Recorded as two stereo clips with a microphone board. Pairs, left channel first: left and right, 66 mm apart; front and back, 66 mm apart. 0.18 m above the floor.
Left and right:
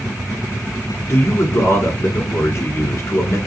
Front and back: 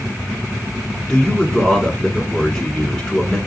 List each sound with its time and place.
1.1 s a man speaking: 80° left, 1.8 m